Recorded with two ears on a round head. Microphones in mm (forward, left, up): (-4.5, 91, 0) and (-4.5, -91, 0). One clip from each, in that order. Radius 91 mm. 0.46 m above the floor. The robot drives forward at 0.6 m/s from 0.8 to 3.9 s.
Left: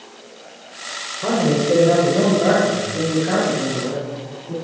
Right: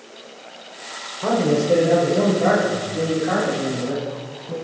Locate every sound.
1.2 s a man speaking: 25° right (ahead or behind), 1.5 m; by 4.5 s 10° right (ahead or behind), 3 m